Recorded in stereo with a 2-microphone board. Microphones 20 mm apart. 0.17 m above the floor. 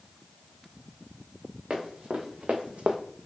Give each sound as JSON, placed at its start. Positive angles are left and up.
{"t": 1.7, "sound": "running footsteps", "side_deg": -65, "distance_m": 1.4}